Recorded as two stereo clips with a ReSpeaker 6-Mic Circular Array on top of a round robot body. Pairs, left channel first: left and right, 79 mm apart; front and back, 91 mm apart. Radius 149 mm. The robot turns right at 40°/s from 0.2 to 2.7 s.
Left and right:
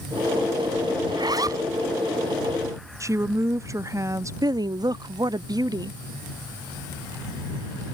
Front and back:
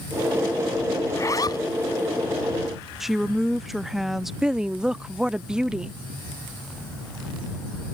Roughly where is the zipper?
Ahead right.